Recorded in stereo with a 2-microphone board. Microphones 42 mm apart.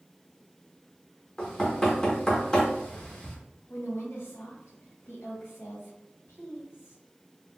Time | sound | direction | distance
1.4 | knocking | 15° left (ahead or behind) | 1.0 m
3.7 | a woman speaking | 75° left (ahead or behind) | 1.7 m